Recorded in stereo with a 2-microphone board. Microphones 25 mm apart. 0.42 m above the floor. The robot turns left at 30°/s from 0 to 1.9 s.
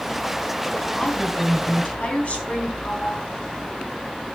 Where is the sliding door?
25° left (ahead or behind), 6.5 m.